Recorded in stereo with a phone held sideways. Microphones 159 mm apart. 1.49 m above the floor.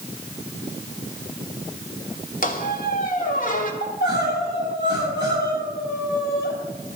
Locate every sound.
2.4 s a squeak: 50° left (ahead or behind), 1.5 m
3.8 s crying: 85° left, 8 m